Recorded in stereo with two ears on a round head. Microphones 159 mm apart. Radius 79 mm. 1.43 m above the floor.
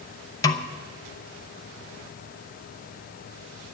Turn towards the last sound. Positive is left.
turn(degrees=20)  # may be behind; listen again after turning